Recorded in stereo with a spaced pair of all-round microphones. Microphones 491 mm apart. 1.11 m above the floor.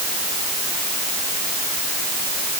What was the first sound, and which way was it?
Only background noise.